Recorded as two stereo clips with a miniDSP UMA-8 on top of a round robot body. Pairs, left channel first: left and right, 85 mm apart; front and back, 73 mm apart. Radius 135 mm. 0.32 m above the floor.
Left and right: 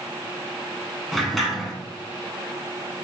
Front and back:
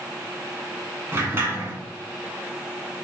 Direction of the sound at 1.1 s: 175° left.